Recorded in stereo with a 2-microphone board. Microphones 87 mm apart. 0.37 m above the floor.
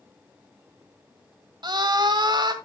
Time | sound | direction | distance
1.6 | a scream | 55° right (ahead or behind) | 1.6 m